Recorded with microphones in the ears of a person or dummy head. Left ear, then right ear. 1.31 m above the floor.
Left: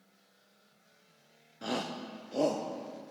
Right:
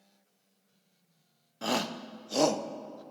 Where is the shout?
25° right (ahead or behind), 0.6 m; by 3.0 s 40° right (ahead or behind), 1.4 m.